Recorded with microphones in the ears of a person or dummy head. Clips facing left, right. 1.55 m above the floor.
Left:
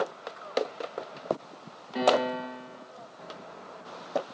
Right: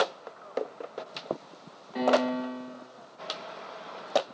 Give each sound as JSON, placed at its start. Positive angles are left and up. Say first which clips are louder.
{"t": 1.9, "sound": "a piano", "louder": "even", "side_deg": 0, "distance_m": 1.0}